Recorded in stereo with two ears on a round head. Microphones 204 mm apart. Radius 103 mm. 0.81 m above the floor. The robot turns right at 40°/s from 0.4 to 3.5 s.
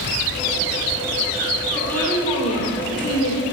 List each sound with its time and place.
1.7 s a woman speaking: straight ahead, 3 m; by 3.4 s 70° left, 3 m